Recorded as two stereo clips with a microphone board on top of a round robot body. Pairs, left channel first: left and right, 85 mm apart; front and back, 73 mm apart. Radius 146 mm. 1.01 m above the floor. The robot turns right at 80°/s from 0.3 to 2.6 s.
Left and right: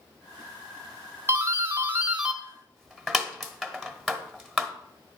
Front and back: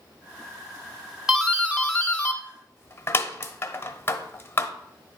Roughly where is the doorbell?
Right.